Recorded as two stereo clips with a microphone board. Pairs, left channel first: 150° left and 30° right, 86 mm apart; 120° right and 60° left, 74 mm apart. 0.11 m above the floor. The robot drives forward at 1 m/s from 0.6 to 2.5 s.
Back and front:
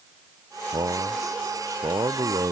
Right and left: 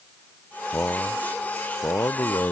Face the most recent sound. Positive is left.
turn(degrees=-70)